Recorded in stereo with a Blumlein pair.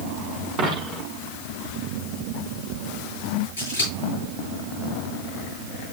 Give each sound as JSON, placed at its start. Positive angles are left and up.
{"t": 0.6, "sound": "a dropped coin", "azimuth_deg": -35, "distance_m": 4.5}
{"t": 3.6, "sound": "scissors", "azimuth_deg": 65, "distance_m": 7.5}